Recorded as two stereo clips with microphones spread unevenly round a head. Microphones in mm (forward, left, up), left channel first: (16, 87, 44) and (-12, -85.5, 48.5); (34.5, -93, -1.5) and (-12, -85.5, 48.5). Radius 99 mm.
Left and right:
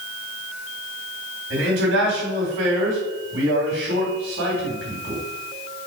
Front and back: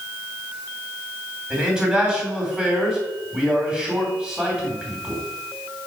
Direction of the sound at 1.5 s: 115° right.